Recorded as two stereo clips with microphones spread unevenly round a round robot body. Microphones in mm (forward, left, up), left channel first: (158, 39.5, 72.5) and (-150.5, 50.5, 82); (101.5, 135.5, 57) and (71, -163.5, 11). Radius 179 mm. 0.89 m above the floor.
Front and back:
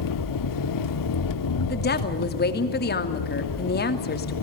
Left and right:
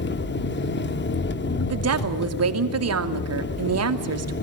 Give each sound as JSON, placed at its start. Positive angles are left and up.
{"t": 0.0, "sound": "an engine running", "azimuth_deg": 25, "distance_m": 1.4}
{"t": 1.7, "sound": "a woman speaking", "azimuth_deg": -60, "distance_m": 2.5}